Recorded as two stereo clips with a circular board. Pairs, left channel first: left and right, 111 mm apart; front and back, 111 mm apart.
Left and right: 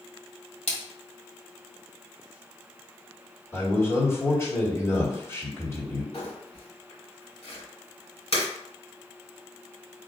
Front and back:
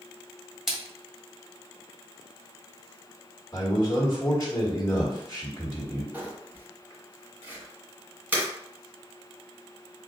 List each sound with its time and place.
0.7 s a splash: 90° left, 1.5 m
3.5 s a man speaking: 45° left, 1.7 m
6.1 s crumpling: 105° left, 2.5 m